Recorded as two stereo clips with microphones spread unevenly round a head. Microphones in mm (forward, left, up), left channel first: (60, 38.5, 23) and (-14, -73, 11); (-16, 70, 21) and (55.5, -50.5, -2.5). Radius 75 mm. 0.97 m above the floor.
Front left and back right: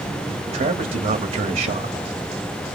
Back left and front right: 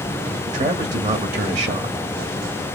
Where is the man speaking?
90° right, 1.3 m.